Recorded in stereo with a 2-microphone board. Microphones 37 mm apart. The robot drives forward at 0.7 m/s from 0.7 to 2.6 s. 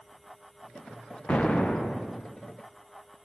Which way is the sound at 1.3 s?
35° left (ahead or behind).